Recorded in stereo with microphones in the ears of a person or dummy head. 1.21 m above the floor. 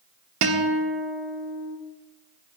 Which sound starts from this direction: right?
A guitar, at 0.4 s.